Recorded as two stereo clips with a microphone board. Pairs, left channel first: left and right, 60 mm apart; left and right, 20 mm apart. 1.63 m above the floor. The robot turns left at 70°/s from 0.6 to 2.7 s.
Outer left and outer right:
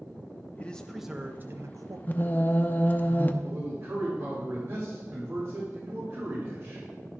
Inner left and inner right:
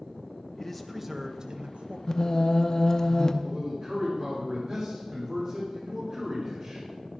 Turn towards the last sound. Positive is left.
turn(degrees=-50)  # may be behind; listen again after turning